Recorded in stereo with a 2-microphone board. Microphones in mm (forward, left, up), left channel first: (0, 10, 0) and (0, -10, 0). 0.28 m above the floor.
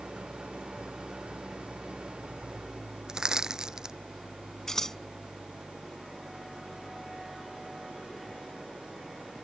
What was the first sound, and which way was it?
An engine running, 75° right (ahead or behind).